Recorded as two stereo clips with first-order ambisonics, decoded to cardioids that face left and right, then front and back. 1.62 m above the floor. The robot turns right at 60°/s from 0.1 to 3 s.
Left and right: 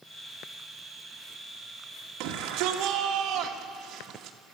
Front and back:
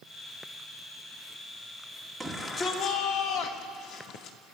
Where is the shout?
85° right, 2 m; by 4.4 s 40° right, 2 m.